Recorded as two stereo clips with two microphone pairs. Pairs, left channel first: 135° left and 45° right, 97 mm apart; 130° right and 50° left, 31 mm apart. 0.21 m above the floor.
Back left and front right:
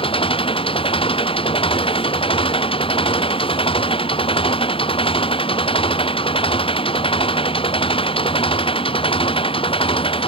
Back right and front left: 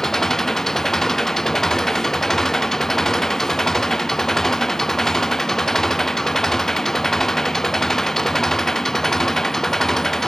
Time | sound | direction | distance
0.0 | an engine running | 155° left | ?